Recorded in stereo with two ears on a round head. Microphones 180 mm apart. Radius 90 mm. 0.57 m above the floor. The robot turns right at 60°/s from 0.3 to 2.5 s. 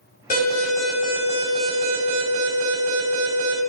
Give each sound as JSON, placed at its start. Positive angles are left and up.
{"t": 0.3, "sound": "an alarm", "azimuth_deg": 140, "distance_m": 6.0}